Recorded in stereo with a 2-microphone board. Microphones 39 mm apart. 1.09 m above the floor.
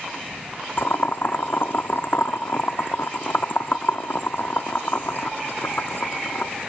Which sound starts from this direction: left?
Boiling, at 0.8 s.